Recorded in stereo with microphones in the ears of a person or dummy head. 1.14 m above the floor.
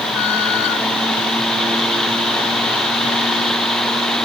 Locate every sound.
Only background noise.